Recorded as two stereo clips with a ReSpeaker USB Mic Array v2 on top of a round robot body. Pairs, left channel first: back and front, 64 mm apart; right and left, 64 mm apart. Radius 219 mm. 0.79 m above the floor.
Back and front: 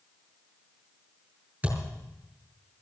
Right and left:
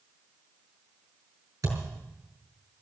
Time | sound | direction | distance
1.6 | a thud | 65° left | 5 m